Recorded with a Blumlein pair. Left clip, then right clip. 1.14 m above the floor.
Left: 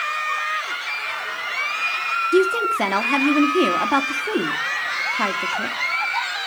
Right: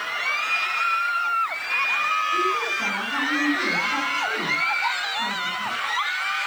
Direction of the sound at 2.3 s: 40° left.